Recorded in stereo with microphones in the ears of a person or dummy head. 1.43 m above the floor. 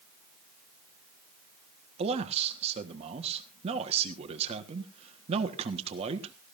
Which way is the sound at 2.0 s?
30° right (ahead or behind).